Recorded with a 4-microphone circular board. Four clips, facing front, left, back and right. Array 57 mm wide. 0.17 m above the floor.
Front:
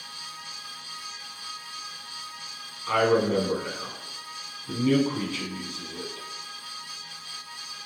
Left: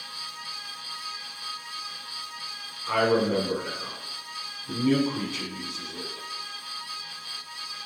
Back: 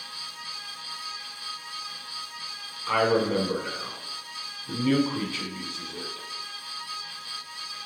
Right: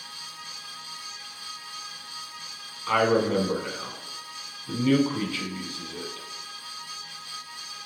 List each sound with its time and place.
2.9 s a man speaking: 110° right, 1.1 m